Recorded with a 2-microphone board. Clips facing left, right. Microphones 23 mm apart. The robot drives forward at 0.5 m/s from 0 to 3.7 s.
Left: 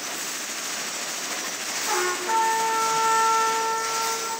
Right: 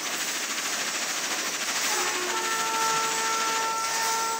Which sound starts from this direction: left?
A trumpet, at 1.9 s.